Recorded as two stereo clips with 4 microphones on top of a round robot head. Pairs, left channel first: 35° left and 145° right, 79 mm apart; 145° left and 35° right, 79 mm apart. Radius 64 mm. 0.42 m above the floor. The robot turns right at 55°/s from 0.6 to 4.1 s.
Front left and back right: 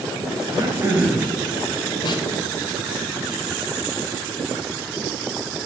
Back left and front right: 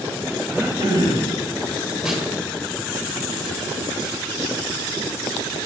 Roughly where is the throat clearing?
Right.